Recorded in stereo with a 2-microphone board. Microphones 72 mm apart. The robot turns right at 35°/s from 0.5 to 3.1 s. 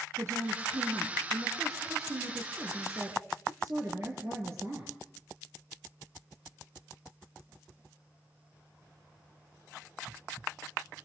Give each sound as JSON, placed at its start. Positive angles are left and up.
{"t": 0.2, "sound": "a woman speaking", "azimuth_deg": -135, "distance_m": 3.0}